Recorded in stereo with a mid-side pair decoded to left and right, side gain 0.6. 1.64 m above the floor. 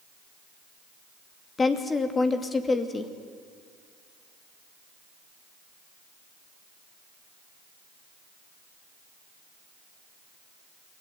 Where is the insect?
I don't hear an insect.